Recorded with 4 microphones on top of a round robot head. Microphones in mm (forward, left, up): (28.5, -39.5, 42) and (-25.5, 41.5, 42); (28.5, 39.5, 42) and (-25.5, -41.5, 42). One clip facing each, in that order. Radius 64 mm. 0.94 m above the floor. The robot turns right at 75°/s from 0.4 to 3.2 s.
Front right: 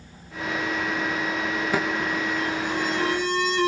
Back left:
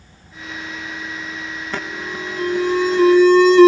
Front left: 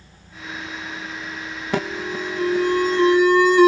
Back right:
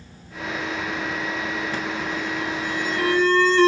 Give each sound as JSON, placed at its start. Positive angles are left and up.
{"t": 1.7, "sound": "an alarm", "azimuth_deg": 25}